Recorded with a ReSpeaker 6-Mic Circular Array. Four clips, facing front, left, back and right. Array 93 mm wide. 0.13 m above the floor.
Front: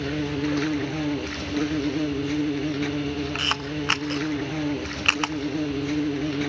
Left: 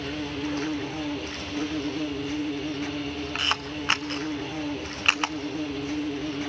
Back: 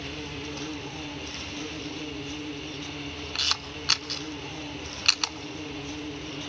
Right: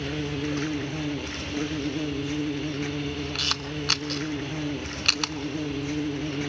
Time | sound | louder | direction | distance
0.0 | an insect | right 1 dB, front 11 dB | 10° right | 1.6 m
3.4 | a camera shutter | left 2 dB, front 8 dB | 40° left | 0.8 m